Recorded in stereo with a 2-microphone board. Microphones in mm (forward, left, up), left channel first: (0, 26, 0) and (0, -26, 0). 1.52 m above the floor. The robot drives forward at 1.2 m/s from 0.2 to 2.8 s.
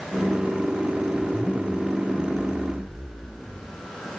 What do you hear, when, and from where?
1.1 s a zipper: 15° left (ahead or behind)